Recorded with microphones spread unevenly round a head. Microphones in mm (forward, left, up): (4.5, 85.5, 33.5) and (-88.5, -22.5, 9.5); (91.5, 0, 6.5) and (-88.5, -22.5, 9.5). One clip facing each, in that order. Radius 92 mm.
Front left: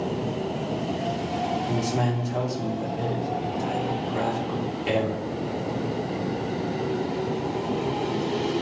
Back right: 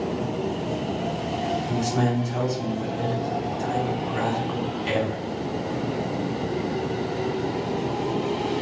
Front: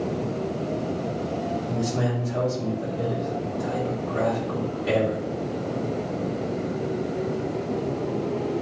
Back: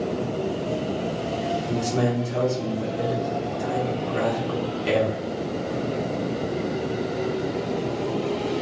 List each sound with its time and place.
1.7 s a man speaking: 130° left, 1.9 m